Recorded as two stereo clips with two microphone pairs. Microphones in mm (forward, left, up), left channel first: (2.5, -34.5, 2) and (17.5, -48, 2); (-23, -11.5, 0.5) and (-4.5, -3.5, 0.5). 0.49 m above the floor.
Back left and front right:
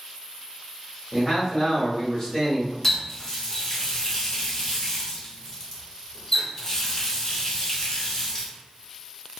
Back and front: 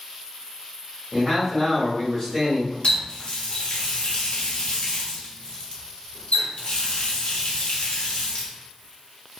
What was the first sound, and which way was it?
A man speaking, 140° left.